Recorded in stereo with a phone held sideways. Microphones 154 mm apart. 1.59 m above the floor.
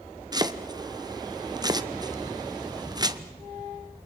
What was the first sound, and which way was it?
Chopping, 25° right (ahead or behind).